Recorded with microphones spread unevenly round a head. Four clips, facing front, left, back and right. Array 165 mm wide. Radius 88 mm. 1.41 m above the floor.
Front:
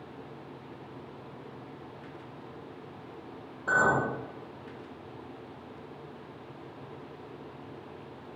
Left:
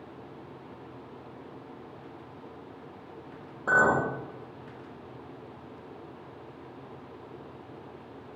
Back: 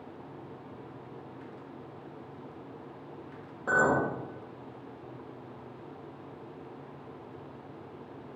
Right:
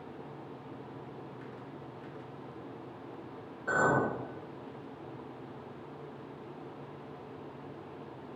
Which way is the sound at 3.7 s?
125° left.